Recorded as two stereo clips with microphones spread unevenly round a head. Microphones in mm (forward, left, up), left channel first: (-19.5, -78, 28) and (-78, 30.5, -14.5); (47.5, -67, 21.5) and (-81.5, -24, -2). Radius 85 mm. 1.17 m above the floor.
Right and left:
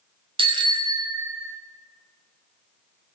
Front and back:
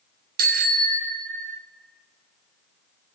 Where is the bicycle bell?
160° left, 2.5 m; by 1.6 s 170° right, 3 m.